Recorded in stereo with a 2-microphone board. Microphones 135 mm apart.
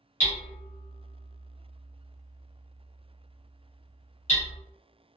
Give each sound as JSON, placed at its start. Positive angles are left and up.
{"t": 0.2, "sound": "hammering", "side_deg": 60, "distance_m": 1.3}